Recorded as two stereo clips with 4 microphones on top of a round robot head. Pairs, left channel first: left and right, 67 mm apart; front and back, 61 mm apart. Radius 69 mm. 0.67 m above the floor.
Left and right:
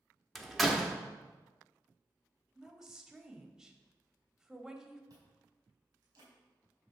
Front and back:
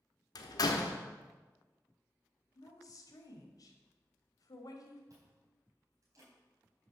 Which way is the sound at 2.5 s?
10° right.